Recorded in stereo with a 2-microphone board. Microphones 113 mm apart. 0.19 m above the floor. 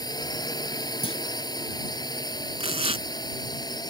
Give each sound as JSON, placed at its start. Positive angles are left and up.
{"t": 0.0, "sound": "a drone", "side_deg": 35}
{"t": 1.0, "sound": "a clunk", "side_deg": 55}
{"t": 2.6, "sound": "tearing paper", "side_deg": -60}